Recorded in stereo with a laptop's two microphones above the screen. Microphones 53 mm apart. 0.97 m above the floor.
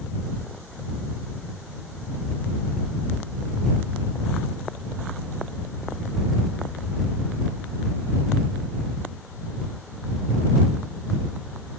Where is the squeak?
No squeak in this recording.